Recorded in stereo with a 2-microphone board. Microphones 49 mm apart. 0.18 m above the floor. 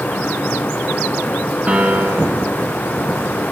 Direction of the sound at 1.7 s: 25° right (ahead or behind).